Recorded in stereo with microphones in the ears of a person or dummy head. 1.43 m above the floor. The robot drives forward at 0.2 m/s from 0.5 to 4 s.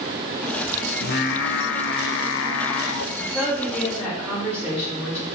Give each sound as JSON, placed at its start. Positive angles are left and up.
{"t": 1.0, "sound": "singing", "side_deg": 55, "distance_m": 0.7}
{"t": 3.1, "sound": "a woman speaking", "side_deg": -10, "distance_m": 3.0}